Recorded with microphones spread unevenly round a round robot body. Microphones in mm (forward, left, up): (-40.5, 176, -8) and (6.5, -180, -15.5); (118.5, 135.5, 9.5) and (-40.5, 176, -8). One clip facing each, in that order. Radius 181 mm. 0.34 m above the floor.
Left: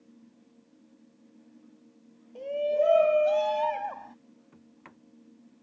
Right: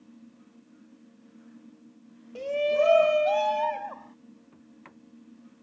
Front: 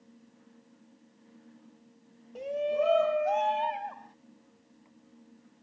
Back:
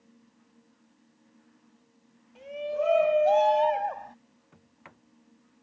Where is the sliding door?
175° right.